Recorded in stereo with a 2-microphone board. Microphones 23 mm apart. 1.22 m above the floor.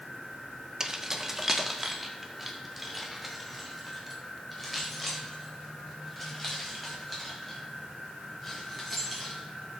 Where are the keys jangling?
25° right (ahead or behind), 0.9 m; by 9.4 s 5° left (ahead or behind), 6.5 m.